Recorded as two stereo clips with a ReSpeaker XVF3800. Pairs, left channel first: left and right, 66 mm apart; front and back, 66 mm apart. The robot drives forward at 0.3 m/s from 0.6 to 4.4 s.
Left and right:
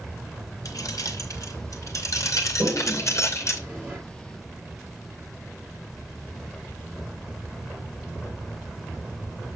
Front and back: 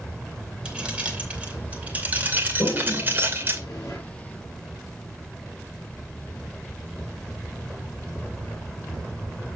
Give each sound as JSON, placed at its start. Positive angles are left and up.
{"t": 0.7, "sound": "keys jangling", "azimuth_deg": 105, "distance_m": 2.0}
{"t": 2.6, "sound": "a toilet flushing", "azimuth_deg": -20, "distance_m": 5.5}